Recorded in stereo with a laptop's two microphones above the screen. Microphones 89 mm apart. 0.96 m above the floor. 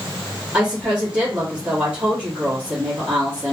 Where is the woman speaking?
15° right (ahead or behind), 1.5 m.